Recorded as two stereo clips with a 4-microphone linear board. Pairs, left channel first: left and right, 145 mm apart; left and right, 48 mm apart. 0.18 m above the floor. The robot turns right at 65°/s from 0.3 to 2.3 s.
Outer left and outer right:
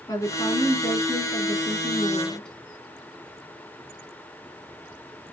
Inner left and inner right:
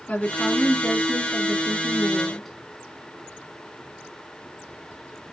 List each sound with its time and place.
0.1 s a woman speaking: 45° left, 1.7 m; by 2.6 s 175° left, 1.7 m